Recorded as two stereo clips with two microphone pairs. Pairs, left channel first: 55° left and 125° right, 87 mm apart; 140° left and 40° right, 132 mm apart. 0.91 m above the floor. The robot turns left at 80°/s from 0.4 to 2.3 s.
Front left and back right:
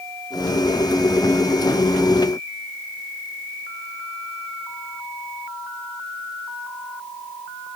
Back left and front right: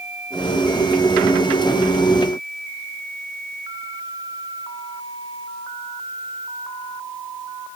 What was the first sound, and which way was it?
Only background noise.